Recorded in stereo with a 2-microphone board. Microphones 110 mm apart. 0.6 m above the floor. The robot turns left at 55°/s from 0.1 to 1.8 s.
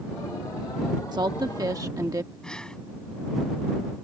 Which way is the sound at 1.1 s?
85° right.